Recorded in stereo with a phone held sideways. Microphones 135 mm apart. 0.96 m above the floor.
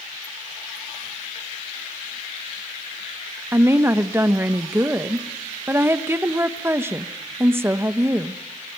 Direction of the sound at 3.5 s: 15° right (ahead or behind).